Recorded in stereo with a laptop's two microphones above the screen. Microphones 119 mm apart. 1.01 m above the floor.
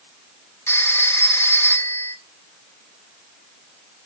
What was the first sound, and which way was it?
A phone ringing, 25° left (ahead or behind).